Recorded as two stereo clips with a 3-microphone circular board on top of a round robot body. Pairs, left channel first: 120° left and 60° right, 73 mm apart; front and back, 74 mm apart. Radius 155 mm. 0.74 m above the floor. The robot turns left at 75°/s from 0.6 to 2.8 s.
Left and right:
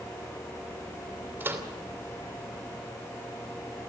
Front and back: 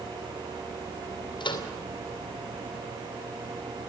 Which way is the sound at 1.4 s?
5° left.